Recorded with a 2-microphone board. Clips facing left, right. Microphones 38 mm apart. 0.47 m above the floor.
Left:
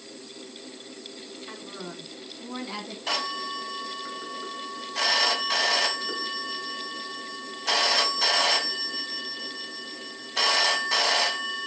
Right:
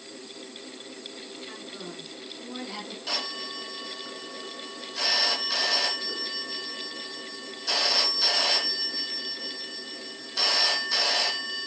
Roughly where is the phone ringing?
Left.